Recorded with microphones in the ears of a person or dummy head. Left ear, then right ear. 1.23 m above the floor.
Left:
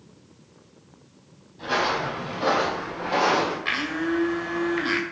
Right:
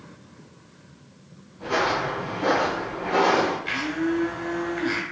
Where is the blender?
45° left (ahead or behind), 1.3 m.